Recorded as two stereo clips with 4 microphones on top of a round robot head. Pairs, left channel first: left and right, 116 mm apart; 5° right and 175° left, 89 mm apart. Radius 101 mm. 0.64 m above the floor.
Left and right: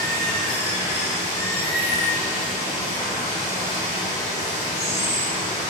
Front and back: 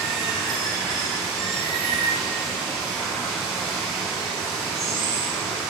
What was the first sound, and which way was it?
Running water, 85° left.